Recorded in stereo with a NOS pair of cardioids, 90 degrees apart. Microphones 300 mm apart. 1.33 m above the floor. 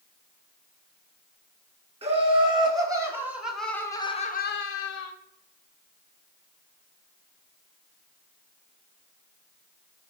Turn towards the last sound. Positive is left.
turn(degrees=75)